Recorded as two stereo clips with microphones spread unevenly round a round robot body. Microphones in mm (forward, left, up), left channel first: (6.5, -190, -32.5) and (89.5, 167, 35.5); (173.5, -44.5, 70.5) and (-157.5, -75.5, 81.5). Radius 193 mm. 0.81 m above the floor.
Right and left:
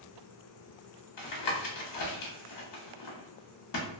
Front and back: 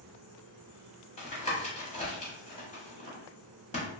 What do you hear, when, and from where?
1.2 s tapping: 65° right, 1.3 m